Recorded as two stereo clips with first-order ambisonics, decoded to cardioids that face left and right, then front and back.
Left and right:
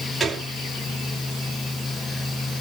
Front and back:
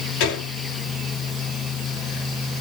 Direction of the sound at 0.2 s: 10° right.